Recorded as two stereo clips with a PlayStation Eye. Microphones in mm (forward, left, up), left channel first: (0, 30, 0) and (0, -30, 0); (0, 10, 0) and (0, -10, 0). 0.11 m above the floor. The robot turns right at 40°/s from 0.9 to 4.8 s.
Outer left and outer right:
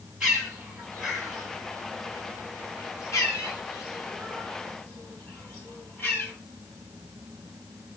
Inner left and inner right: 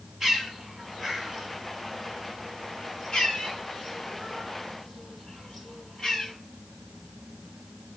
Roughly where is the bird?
Centre.